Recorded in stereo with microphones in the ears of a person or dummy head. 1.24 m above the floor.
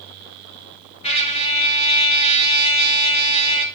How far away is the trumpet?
About 2 m.